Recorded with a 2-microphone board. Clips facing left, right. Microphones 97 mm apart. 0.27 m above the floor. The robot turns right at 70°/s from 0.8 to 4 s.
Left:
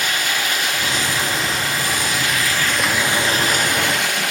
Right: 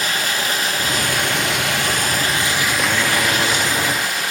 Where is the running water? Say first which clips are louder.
Even; 140° right, 4 m; by 4.3 s 85° left, 4 m.